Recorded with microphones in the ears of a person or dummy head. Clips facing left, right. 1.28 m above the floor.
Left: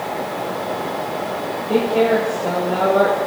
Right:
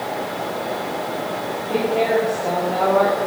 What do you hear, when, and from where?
1.7 s a woman speaking: 30° left (ahead or behind), 6 m